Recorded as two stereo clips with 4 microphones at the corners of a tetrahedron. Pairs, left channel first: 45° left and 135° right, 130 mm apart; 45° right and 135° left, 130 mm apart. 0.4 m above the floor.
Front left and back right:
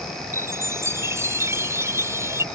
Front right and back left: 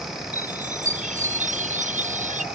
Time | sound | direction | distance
0.3 | a chime | 155° left | ?